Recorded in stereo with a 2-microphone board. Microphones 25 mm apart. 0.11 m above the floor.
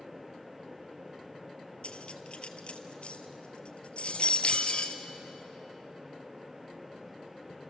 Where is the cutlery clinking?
50° left (ahead or behind), 1.6 m.